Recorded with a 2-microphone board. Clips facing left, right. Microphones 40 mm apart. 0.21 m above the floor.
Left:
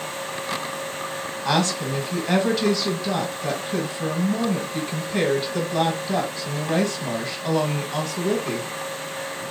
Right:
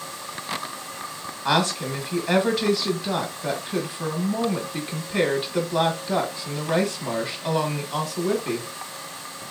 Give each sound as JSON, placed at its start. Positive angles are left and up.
{"t": 1.4, "sound": "a woman speaking", "side_deg": -10, "distance_m": 1.2}